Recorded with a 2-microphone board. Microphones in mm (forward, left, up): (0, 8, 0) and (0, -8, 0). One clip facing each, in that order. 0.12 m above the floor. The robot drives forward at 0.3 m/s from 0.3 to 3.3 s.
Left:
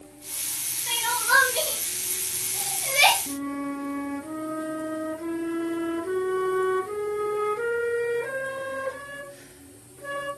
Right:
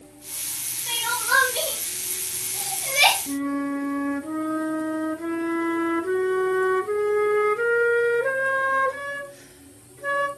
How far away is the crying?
About 2.5 m.